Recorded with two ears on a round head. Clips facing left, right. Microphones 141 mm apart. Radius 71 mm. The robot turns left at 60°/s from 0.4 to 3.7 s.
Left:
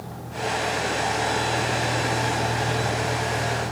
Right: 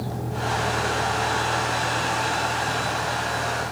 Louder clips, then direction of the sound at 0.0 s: Right 2 dB; 130° right.